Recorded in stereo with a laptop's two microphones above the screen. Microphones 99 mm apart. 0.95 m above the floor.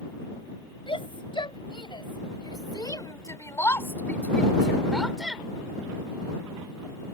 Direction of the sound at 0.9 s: 65° left (ahead or behind).